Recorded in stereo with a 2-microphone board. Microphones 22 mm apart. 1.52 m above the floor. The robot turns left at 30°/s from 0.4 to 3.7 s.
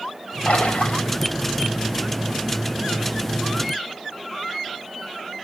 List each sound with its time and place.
0.5 s a splash: 85° left, 4 m; by 1.1 s 75° left (ahead or behind), 4 m